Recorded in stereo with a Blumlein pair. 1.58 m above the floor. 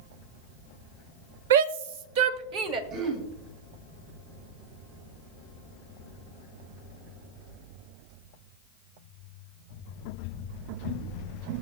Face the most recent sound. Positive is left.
turn(degrees=-40)